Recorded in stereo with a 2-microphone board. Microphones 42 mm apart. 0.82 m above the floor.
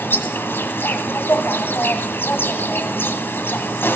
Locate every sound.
0.0 s an insect: 70° left (ahead or behind), 1.7 m